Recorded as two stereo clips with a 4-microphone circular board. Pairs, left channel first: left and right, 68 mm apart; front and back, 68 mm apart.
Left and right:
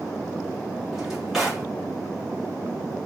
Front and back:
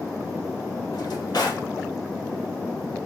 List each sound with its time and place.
0.9 s a drawer: 5° right, 1.0 m